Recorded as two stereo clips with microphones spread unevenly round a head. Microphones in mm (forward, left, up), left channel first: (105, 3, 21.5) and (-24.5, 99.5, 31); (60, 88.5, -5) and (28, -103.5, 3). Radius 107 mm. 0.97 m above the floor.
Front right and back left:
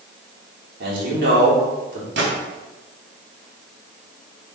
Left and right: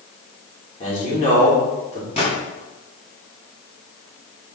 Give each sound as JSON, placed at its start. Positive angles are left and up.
{"t": 0.8, "sound": "a man speaking", "azimuth_deg": 140, "distance_m": 3.5}
{"t": 2.2, "sound": "a gunshot", "azimuth_deg": 145, "distance_m": 3.5}